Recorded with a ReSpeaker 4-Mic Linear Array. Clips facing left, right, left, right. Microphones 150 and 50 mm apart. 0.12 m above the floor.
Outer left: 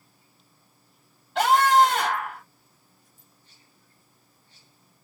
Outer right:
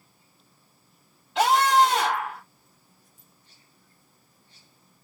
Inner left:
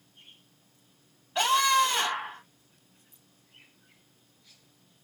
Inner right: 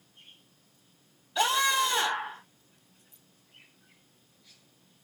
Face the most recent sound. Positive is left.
turn(degrees=40)  # may be behind; listen again after turning